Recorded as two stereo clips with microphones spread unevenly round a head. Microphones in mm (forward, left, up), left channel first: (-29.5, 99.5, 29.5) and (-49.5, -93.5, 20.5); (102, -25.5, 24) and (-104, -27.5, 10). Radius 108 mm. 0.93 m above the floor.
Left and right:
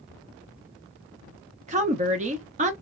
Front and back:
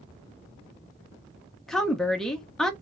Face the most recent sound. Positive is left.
turn(degrees=-90)